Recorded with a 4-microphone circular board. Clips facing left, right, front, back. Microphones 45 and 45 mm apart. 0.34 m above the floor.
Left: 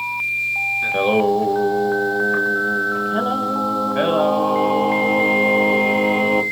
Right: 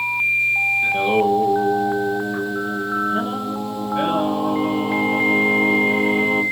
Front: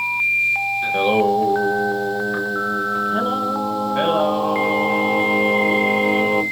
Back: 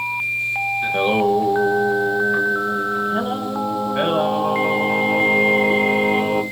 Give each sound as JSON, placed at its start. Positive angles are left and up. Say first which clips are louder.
{"t": 0.8, "sound": "singing", "louder": "even, front 1 dB", "azimuth_deg": 90, "distance_m": 0.6}